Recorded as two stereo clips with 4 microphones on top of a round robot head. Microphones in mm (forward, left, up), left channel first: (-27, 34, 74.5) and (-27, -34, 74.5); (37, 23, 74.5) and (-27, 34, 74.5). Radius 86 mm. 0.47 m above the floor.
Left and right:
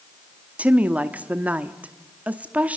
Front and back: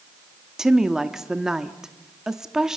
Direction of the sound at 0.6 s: 120° right.